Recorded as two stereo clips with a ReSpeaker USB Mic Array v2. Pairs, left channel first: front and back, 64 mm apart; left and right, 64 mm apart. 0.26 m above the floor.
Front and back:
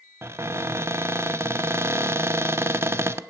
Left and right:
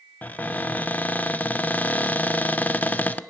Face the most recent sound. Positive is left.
turn(degrees=145)